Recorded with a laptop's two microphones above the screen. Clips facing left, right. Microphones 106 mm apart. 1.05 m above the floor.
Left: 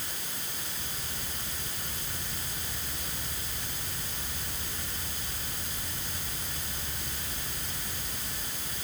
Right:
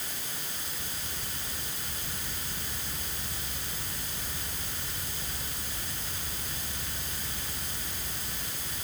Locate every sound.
Only background noise.